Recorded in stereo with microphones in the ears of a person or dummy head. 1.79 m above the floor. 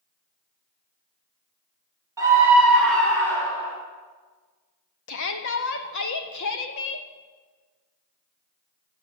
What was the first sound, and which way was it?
A scream, 15° right (ahead or behind).